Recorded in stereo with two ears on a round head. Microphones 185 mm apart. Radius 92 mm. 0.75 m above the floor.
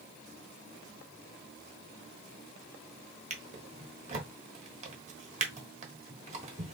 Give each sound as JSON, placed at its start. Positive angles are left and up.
{"t": 3.3, "sound": "a drawer", "side_deg": -35, "distance_m": 1.3}